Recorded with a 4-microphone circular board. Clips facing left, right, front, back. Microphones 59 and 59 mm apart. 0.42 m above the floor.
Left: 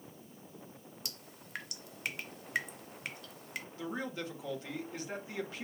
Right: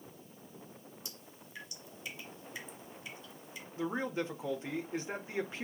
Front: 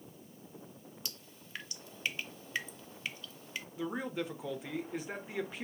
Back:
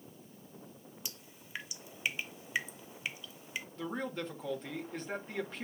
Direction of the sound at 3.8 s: 70° right.